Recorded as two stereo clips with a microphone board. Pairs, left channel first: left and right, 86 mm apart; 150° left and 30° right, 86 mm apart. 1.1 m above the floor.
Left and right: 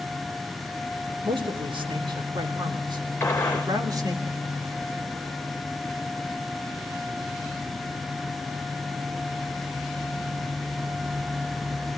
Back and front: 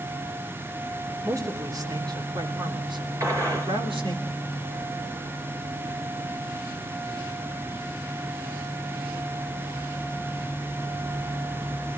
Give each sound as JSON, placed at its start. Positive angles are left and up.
{"t": 1.2, "sound": "a man speaking", "azimuth_deg": -80, "distance_m": 3.0}
{"t": 3.2, "sound": "a gunshot", "azimuth_deg": 25, "distance_m": 3.5}